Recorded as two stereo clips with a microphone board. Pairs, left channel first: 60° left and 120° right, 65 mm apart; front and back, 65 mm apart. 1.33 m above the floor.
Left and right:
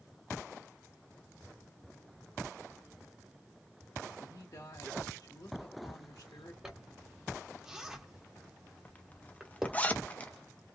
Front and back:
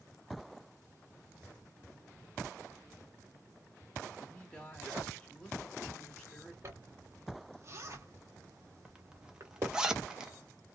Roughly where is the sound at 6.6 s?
Behind.